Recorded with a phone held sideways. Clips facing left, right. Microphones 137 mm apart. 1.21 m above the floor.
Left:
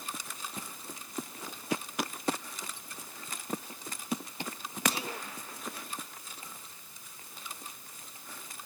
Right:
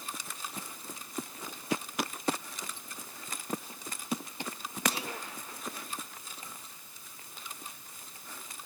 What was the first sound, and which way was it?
Only background noise.